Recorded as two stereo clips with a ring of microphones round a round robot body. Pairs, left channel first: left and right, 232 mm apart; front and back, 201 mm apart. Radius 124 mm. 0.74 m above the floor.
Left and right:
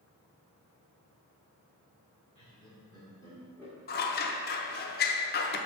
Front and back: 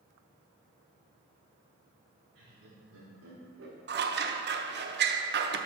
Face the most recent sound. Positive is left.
turn(degrees=140)